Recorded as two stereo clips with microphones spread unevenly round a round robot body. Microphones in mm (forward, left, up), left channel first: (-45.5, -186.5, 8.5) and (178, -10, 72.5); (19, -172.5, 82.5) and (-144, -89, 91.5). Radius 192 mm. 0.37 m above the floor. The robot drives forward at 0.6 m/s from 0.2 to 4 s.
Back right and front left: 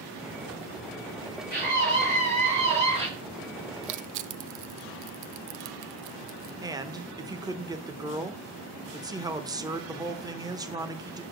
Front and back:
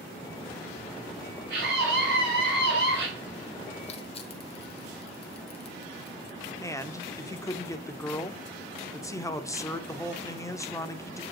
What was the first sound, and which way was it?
A scream, 105° left.